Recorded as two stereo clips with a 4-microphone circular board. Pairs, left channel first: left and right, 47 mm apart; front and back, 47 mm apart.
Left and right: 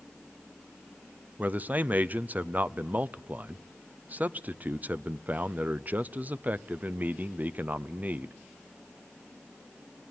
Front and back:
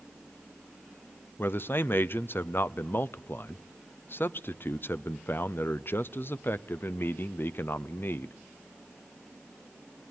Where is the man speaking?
35° right, 0.6 m.